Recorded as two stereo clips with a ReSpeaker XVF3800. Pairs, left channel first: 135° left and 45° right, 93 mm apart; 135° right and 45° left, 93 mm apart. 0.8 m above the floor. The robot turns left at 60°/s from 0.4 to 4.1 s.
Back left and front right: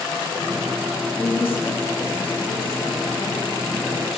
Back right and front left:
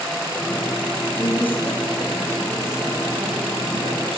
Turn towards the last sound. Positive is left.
turn(degrees=45)